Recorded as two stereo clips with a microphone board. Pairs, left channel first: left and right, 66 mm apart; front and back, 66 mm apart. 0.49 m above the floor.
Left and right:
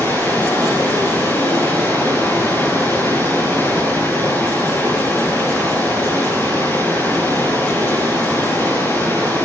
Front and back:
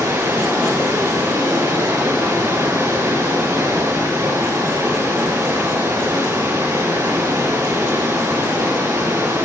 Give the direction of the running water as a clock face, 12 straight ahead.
7 o'clock.